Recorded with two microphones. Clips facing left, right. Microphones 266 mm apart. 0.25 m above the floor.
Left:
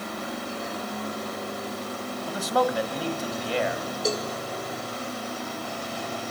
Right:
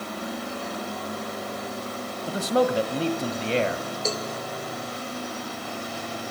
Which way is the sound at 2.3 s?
25° right (ahead or behind).